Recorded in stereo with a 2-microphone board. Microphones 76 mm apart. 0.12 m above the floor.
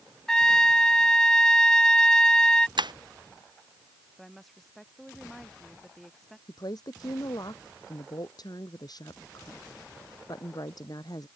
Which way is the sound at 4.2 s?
Centre (ahead or behind).